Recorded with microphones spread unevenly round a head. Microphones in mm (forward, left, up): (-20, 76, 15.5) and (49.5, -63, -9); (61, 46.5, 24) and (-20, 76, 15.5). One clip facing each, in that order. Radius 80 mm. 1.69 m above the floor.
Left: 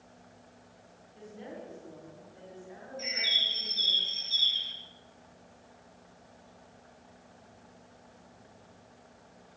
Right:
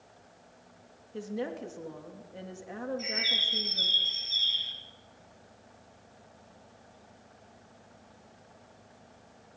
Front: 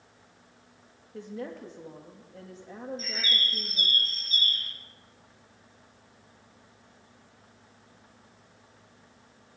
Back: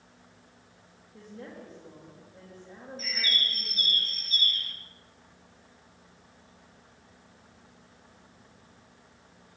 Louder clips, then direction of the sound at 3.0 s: Right 4 dB, back 4 dB; 30° left.